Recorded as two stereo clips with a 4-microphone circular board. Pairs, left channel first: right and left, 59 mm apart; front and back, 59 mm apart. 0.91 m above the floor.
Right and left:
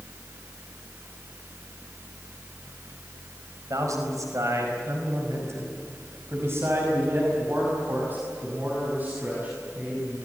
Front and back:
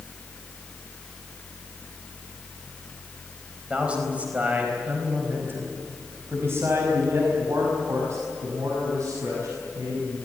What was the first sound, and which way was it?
A man speaking, 110° left.